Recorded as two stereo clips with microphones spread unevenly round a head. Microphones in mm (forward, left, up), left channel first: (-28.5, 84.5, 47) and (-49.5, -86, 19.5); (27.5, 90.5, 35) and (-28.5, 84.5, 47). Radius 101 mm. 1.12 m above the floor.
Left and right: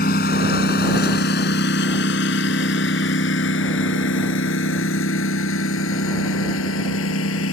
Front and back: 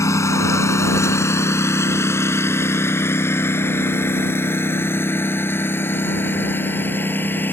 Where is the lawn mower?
35° left; by 7.5 s 60° left.